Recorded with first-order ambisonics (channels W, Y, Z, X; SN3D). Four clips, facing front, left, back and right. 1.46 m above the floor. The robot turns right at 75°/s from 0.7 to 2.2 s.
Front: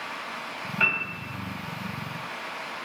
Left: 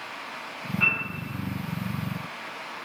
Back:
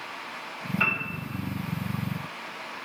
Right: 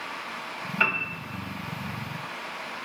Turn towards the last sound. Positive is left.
turn(degrees=20)